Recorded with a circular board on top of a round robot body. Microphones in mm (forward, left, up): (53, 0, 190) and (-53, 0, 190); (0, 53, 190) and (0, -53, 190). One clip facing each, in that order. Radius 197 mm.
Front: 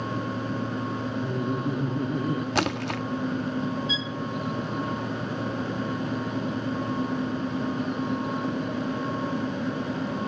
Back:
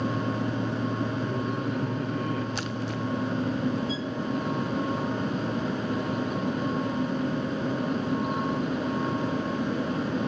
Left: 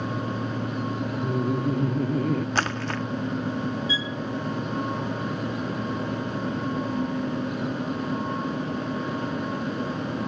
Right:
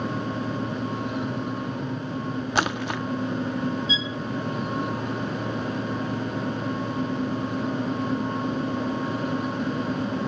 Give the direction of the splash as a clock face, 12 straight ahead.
12 o'clock.